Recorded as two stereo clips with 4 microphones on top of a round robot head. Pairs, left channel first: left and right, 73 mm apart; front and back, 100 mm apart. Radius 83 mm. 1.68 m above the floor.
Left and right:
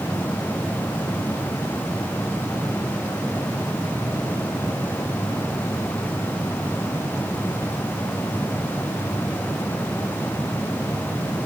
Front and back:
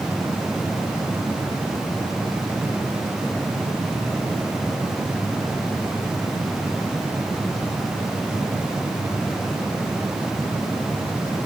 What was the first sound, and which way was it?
Only background noise.